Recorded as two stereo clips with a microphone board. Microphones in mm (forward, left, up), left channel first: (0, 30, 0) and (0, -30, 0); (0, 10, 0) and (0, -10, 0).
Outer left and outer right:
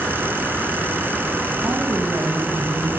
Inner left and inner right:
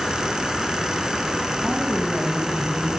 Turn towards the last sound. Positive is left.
turn(degrees=-55)  # may be behind; listen again after turning